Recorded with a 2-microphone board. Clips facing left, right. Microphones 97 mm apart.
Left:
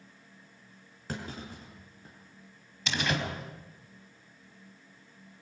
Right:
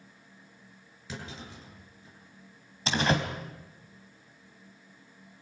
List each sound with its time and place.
1.1 s a clunk: 50° left (ahead or behind), 6.5 m
2.9 s a door slam: 35° right (ahead or behind), 3.5 m